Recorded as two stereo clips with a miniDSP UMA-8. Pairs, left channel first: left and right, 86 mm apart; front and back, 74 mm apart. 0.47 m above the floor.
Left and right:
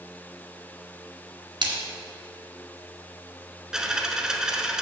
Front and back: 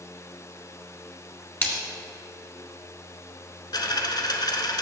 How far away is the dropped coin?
About 0.8 m.